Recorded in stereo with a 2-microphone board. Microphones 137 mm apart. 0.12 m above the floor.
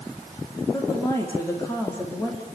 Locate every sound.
0.7 s a woman speaking: 25° left (ahead or behind), 7 m; by 2.5 s 15° left (ahead or behind), 6.5 m